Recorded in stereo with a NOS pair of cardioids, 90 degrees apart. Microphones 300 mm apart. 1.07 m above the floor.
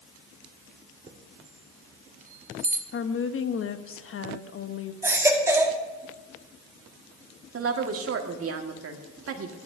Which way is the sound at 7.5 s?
45° right.